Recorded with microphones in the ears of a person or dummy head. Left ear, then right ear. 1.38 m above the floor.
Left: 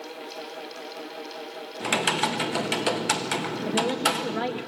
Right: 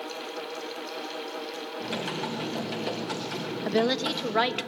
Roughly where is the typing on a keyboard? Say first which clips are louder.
Left 10 dB; left.